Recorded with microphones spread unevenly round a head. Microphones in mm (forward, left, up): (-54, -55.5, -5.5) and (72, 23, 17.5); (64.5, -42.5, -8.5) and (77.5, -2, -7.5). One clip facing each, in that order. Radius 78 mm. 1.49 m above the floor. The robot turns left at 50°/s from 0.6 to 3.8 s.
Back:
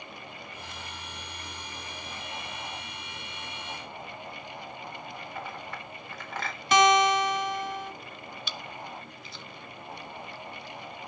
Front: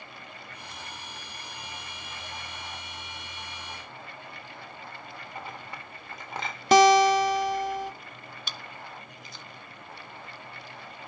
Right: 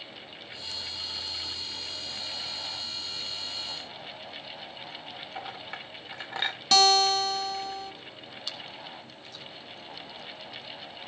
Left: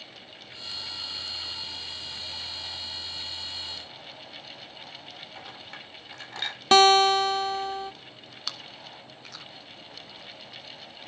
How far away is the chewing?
About 0.8 m.